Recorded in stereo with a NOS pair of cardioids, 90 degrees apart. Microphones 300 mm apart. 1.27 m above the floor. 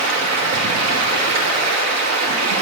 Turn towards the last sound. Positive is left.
turn(degrees=-65)